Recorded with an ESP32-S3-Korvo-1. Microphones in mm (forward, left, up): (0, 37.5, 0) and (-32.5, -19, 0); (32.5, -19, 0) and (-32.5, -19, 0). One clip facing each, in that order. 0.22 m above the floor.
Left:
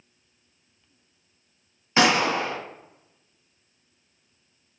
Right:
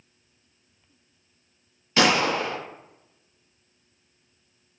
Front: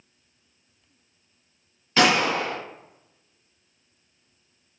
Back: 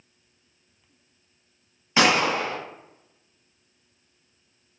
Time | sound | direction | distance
2.0 | a gunshot | 110° left | 1.2 m